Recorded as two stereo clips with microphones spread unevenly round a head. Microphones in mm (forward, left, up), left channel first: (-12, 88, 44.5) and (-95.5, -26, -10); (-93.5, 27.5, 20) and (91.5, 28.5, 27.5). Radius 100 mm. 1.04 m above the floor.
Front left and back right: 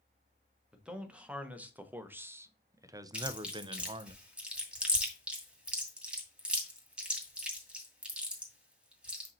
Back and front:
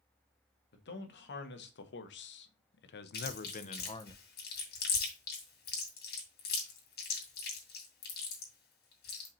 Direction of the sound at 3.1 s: 145° left.